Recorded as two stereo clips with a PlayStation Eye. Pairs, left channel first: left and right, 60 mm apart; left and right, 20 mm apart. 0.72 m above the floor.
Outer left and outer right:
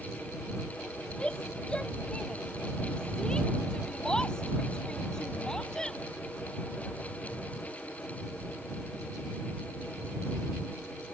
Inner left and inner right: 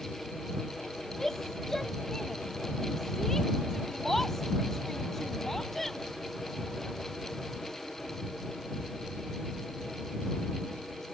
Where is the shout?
15° left (ahead or behind); by 6.0 s 10° left (ahead or behind).